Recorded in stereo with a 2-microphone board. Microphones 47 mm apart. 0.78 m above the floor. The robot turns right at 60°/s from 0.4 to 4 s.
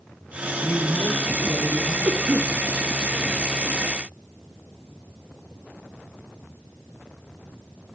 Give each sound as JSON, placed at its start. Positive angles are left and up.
{"t": 0.6, "sound": "a man speaking", "azimuth_deg": 25, "distance_m": 2.5}
{"t": 2.0, "sound": "a cough", "side_deg": -60, "distance_m": 1.6}